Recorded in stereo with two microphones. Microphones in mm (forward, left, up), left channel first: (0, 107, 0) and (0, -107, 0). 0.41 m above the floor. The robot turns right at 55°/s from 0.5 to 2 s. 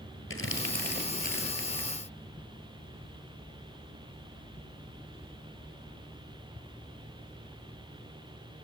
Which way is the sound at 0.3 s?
75° left (ahead or behind).